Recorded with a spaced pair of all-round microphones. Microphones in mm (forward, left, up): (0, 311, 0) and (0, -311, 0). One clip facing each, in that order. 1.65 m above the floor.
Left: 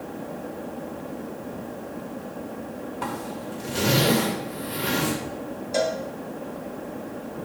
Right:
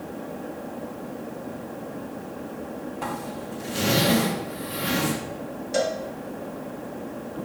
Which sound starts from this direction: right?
A cowbell, at 5.7 s.